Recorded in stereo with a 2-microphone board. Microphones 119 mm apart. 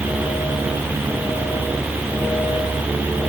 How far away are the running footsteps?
I don't hear running footsteps.